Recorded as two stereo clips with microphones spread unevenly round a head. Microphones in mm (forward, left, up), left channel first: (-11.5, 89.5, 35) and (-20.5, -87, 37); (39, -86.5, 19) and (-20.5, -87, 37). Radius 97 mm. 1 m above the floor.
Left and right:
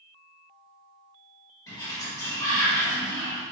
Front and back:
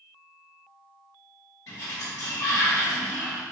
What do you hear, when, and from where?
1.7 s a sliding door: 15° left, 1.4 m